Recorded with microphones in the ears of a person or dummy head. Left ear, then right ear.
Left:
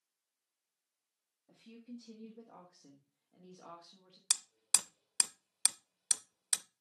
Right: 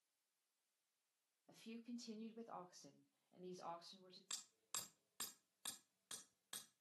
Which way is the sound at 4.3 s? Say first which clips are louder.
Left 18 dB; 65° left (ahead or behind).